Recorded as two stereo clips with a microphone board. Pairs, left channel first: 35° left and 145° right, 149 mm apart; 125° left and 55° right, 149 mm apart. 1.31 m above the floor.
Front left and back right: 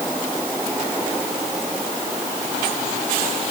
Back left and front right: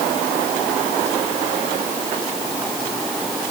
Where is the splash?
I don't hear a splash.